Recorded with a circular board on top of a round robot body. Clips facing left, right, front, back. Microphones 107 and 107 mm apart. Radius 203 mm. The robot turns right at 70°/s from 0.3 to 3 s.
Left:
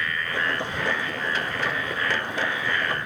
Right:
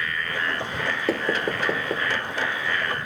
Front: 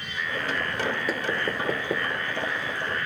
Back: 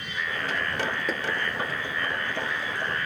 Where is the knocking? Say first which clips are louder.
Right 5 dB, front 2 dB; 85° right; by 2.1 s 15° right.